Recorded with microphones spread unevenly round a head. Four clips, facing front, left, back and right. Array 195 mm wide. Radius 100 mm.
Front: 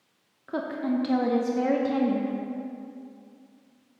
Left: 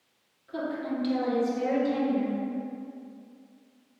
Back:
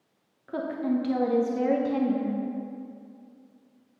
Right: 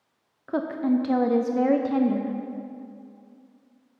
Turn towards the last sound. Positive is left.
turn(degrees=-70)